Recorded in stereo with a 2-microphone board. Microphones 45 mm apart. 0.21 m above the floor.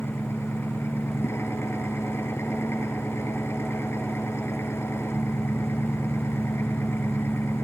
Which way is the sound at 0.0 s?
70° left (ahead or behind).